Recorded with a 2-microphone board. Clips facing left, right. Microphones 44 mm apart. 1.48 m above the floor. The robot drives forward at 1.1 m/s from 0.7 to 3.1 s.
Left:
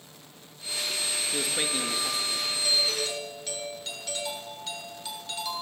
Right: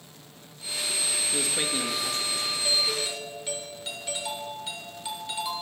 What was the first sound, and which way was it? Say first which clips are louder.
A man speaking: even; 5° left (ahead or behind).